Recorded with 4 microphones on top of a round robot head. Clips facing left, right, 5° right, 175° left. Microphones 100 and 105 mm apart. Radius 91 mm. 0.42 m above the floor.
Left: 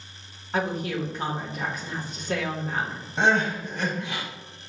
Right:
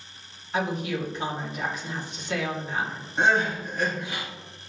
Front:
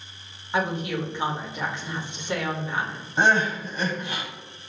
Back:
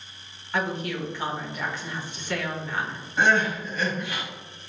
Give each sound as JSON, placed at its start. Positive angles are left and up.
{"t": 0.5, "sound": "a woman speaking", "azimuth_deg": 60, "distance_m": 1.5}
{"t": 3.2, "sound": "crying", "azimuth_deg": 60, "distance_m": 1.9}